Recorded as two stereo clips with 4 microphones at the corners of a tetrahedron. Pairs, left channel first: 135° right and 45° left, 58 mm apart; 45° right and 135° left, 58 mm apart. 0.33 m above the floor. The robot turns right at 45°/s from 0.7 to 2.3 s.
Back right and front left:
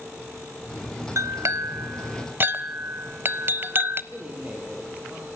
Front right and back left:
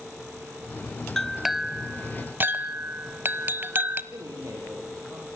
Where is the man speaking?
110° left, 9.5 m.